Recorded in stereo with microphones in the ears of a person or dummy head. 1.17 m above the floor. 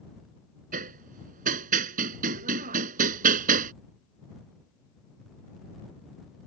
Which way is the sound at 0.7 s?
50° right (ahead or behind).